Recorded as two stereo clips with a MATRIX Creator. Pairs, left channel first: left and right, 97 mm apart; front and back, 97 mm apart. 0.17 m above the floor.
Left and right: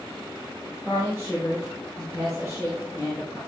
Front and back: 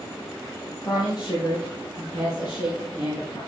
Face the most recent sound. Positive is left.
turn(degrees=40)